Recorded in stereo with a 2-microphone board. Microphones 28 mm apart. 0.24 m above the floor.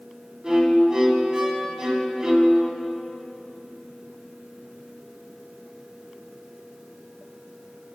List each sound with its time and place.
0.4 s a violin: 25° right (ahead or behind), 0.7 m